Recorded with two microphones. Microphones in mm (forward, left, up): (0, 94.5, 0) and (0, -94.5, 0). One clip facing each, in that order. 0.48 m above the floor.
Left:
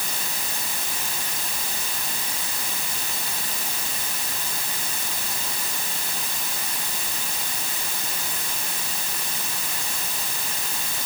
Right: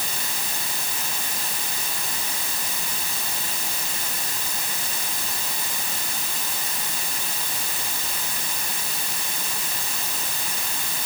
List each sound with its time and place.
Only background noise.